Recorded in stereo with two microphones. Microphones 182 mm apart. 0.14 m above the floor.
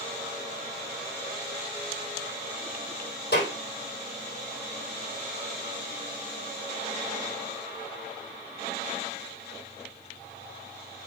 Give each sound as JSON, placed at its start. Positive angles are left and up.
{"t": 3.3, "sound": "a clap", "side_deg": 70, "distance_m": 4.0}